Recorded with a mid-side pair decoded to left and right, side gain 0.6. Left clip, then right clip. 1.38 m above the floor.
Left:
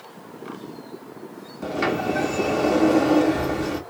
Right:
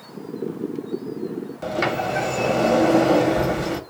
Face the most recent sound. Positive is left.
turn(degrees=-30)